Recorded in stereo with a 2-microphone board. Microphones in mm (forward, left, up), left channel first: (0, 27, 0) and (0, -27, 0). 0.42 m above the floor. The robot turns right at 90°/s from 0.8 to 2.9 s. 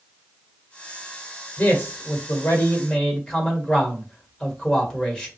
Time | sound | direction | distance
1.6 | a man speaking | 40° left | 1.4 m